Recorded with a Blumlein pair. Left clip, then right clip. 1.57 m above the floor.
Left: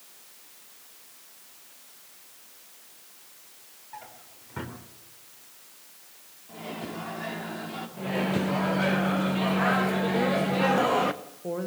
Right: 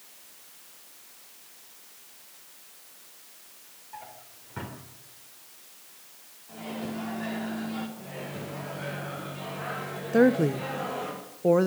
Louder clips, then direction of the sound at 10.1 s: Right 8 dB; 60° right.